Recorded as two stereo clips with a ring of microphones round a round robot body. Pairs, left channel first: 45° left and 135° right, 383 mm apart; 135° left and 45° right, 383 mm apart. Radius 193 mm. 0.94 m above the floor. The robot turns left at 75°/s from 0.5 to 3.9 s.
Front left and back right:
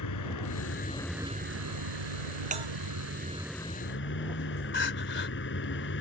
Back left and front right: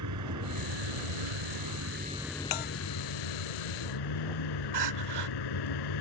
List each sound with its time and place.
0.0 s a vehicle: straight ahead; by 6.0 s 105° left
2.5 s a bell: 155° left; by 2.7 s 140° left
4.7 s crying: 15° right